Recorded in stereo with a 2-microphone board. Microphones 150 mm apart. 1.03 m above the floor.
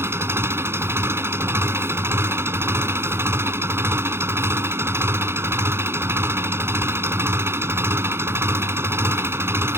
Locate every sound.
0.0 s an engine running: 15° right (ahead or behind)